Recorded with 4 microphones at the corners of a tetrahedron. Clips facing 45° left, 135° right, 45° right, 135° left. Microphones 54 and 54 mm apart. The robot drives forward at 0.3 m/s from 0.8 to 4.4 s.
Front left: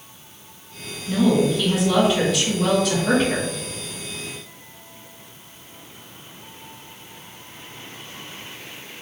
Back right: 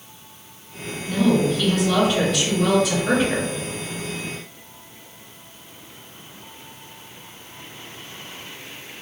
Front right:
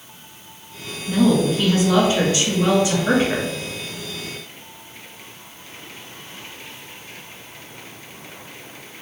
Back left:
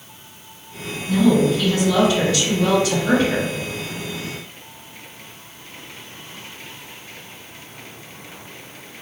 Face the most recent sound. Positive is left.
turn(degrees=-100)